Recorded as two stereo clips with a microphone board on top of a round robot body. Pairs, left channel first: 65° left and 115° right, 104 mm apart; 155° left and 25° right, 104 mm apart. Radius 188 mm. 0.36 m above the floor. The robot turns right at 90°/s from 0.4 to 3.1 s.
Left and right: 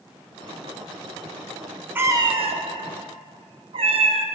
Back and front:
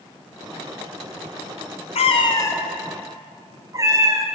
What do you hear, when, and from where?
1.9 s a cat meowing: 175° left, 0.7 m; by 4.3 s 80° right, 0.7 m